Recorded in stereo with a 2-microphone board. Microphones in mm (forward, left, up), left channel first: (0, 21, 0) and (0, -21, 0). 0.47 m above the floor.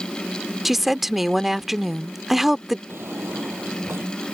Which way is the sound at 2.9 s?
75° right (ahead or behind).